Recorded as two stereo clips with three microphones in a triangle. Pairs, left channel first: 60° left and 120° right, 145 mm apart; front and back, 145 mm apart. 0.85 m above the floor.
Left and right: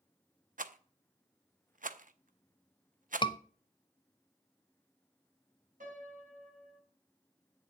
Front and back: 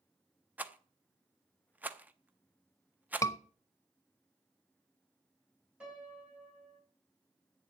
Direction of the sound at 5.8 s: 95° right.